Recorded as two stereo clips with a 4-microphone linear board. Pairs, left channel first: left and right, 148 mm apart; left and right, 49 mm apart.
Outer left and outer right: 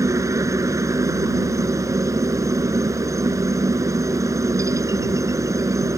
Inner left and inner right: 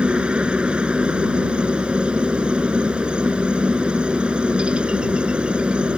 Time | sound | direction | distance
0.0 | a helicopter | 20° right (ahead or behind) | ?